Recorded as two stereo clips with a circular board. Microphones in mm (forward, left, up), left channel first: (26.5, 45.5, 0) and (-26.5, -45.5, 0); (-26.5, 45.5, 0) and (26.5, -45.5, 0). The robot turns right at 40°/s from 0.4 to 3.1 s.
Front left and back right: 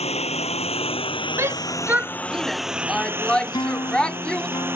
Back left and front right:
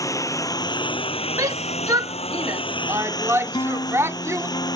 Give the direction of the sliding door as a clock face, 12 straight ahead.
I don't hear a sliding door.